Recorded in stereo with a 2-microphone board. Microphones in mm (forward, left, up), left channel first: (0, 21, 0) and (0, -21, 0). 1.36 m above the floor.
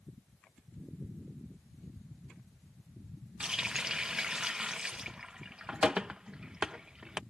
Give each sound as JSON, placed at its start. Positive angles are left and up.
{"t": 3.4, "sound": "a running tap", "side_deg": -20}